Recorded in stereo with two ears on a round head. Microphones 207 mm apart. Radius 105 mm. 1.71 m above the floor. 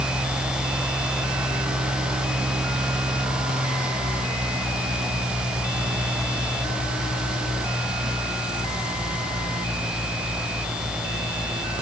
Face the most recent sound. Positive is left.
No sound to turn to.